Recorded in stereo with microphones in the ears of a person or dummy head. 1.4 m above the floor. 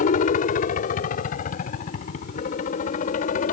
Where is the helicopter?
45° left (ahead or behind).